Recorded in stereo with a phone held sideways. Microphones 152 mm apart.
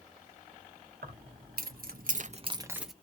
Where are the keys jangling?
75° right (ahead or behind), 1.3 m; by 2.9 s centre (ahead or behind), 0.6 m.